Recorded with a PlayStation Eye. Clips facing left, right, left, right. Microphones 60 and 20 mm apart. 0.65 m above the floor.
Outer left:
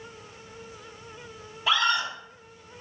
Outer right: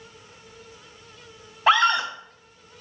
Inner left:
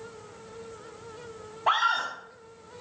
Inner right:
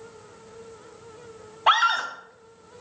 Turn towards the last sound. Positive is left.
turn(degrees=-45)  # may be behind; listen again after turning